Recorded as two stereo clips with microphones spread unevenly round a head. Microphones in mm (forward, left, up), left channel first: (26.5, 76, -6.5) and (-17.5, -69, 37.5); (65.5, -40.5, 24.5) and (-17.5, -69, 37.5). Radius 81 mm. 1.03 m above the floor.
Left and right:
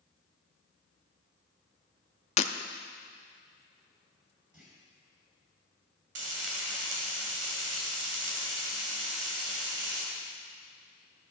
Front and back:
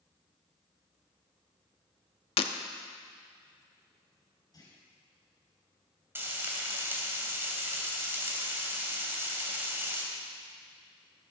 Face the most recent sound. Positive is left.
turn(degrees=-100)